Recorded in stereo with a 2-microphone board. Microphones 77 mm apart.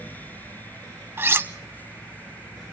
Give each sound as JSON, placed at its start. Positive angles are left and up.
{"t": 1.2, "sound": "cutlery clinking", "side_deg": -35, "distance_m": 0.6}